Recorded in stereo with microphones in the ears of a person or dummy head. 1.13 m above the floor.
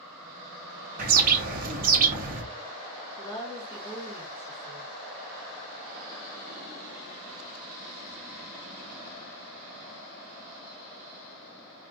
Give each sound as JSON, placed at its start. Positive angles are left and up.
{"t": 1.0, "sound": "a bird", "side_deg": -40, "distance_m": 0.7}
{"t": 3.2, "sound": "a woman speaking", "side_deg": 30, "distance_m": 1.8}